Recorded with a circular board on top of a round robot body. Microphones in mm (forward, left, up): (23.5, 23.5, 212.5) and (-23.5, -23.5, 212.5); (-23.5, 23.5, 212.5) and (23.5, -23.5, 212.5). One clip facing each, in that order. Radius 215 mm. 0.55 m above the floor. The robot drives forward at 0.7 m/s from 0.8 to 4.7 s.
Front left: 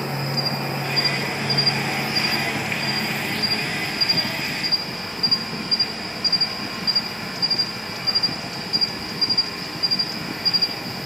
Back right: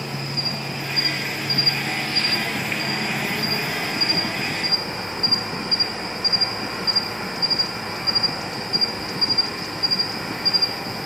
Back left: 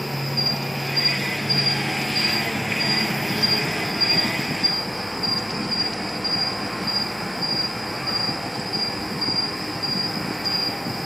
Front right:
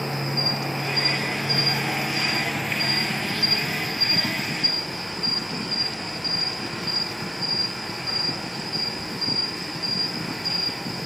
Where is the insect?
5° left, 1.9 m; by 11.1 s 175° left, 2.0 m.